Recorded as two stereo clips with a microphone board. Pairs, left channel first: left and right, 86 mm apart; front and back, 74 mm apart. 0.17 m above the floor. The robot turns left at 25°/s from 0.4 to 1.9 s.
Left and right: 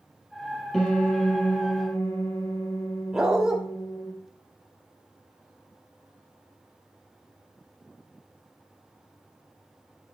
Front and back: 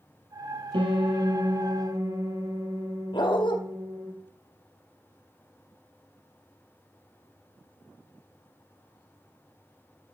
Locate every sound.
0.7 s a piano: straight behind, 2.5 m; by 4.1 s 150° left, 2.5 m
3.1 s a dog barking: 10° right, 1.9 m